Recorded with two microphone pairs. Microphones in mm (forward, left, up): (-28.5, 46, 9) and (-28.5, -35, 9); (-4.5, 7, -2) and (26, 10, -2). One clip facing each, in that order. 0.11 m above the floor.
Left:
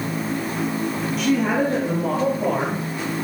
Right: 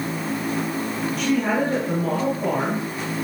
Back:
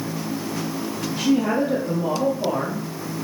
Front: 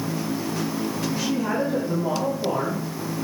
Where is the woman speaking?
Straight behind, 3.5 m; by 2.8 s 165° left, 5 m.